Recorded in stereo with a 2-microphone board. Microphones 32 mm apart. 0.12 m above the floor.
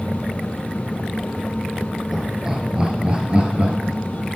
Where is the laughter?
15° right (ahead or behind), 2.5 m; by 4.2 s 45° right (ahead or behind), 3 m.